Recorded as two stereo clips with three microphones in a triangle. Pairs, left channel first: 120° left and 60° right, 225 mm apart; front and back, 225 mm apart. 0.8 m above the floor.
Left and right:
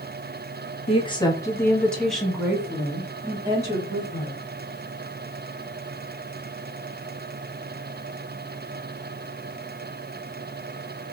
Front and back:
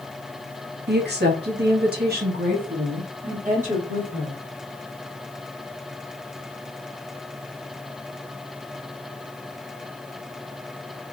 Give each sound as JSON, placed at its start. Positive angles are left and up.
{"t": 0.9, "sound": "a woman speaking", "azimuth_deg": 175, "distance_m": 1.2}